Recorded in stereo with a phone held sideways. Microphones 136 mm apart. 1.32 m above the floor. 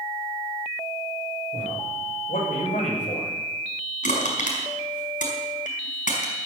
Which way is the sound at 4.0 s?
75° left (ahead or behind).